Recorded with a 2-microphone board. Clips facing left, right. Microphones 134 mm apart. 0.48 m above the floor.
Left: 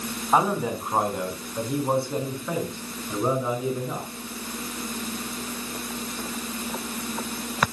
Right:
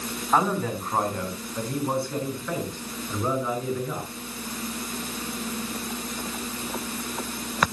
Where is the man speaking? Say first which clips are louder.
Left 1 dB; 15° left (ahead or behind), 3.5 m; by 4.1 s 20° left (ahead or behind), 6.5 m.